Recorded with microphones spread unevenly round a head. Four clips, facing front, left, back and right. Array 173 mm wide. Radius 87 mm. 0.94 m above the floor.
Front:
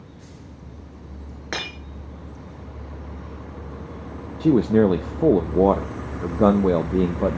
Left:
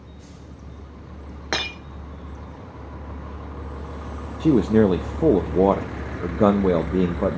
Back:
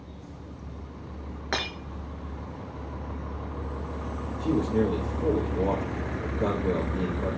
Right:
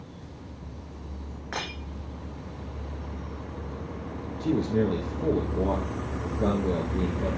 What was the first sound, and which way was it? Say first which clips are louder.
Breaking glass: left 6 dB, even; 80° left.